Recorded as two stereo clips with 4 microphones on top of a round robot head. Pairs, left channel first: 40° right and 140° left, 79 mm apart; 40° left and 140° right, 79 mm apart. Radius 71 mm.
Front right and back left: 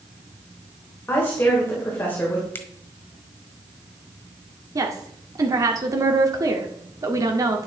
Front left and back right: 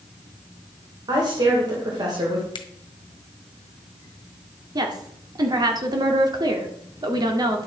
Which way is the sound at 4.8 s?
175° right.